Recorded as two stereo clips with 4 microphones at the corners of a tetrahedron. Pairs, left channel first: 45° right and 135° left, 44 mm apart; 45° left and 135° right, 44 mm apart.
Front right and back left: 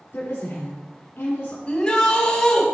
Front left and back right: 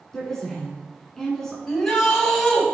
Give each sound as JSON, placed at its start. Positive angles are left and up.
{"t": 0.1, "sound": "a woman speaking", "azimuth_deg": -35, "distance_m": 2.0}
{"t": 1.7, "sound": "a shout", "azimuth_deg": -40, "distance_m": 1.3}